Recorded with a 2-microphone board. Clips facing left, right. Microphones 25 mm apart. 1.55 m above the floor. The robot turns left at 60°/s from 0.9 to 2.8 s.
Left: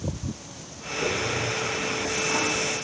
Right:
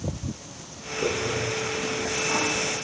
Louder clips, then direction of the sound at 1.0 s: Even; 20° right (ahead or behind).